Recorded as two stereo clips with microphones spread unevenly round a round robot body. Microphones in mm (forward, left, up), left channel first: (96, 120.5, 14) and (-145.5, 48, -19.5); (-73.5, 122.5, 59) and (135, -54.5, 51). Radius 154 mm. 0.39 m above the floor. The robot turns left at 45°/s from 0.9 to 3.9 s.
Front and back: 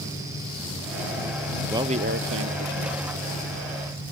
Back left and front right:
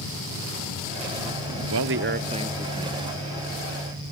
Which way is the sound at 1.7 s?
80° right.